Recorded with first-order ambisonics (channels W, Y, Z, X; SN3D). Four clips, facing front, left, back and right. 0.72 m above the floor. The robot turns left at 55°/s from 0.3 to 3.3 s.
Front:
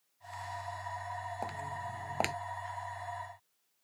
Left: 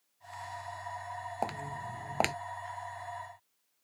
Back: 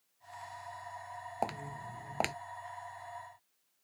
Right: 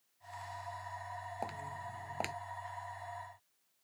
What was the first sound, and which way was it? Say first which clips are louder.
Footsteps: left 8 dB, back 1 dB; 130° left.